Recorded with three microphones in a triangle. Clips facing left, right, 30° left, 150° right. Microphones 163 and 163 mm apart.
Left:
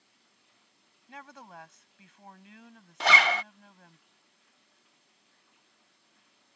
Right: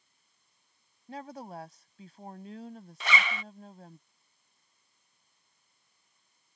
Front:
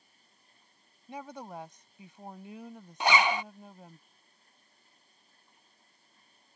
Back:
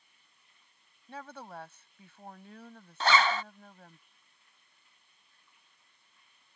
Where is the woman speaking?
45° right.